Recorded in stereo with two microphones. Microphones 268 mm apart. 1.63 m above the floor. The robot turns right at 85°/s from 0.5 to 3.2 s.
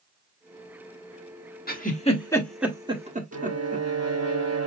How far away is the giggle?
About 1.4 m.